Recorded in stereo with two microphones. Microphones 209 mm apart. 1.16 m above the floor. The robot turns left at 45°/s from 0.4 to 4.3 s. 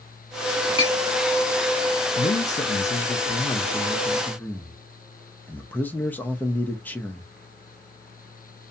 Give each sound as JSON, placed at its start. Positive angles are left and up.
{"t": 0.8, "sound": "a clink", "side_deg": 25, "distance_m": 1.0}
{"t": 2.2, "sound": "a man speaking", "azimuth_deg": 110, "distance_m": 0.6}